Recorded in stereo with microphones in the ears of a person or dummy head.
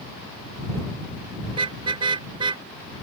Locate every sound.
1.5 s a car horn: 30° right (ahead or behind); by 2.6 s 25° right (ahead or behind)